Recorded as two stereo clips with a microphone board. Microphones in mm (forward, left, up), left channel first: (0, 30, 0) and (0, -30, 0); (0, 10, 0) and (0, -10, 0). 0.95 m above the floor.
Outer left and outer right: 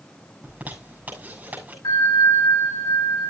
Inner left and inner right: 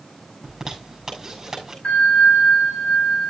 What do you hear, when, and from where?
0.4 s a zipper: 25° right (ahead or behind), 6.5 m
1.8 s a bell: 80° left, 7 m